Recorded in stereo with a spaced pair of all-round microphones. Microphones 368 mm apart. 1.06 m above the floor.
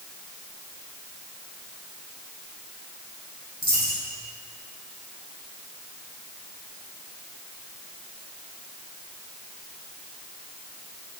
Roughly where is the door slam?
No door slam in this recording.